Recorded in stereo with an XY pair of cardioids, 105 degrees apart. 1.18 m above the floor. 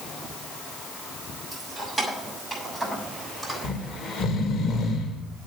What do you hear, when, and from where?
1.5 s keys jangling: straight ahead, 6 m
3.6 s snoring: 55° left, 2.5 m